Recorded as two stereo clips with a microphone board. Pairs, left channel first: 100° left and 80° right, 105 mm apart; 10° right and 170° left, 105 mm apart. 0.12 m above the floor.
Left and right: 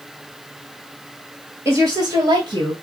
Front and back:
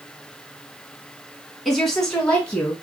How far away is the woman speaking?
About 1.2 m.